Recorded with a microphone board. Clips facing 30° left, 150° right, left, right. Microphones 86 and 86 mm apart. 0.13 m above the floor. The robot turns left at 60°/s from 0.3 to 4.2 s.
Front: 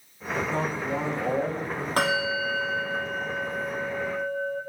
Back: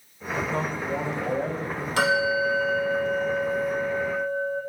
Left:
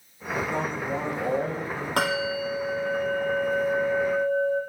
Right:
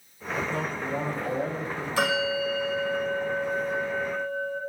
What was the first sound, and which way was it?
A man speaking, 130° left.